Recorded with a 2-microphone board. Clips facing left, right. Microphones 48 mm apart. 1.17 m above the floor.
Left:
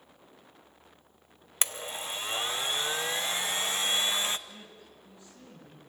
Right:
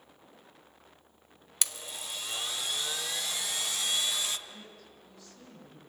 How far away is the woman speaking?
About 8.5 m.